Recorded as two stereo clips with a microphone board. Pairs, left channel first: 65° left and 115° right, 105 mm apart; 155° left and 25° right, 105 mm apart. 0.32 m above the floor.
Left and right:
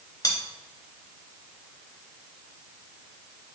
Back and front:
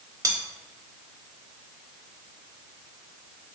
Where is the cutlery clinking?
25° left, 0.7 m.